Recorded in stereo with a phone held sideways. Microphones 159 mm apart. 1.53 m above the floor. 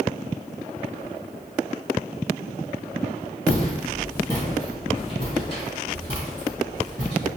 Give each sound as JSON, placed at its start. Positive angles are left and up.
{"t": 3.5, "sound": "footsteps", "side_deg": 10, "distance_m": 1.8}